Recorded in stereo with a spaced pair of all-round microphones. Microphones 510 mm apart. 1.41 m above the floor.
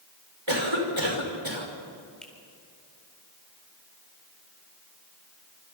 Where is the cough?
65° right (ahead or behind), 5.5 m.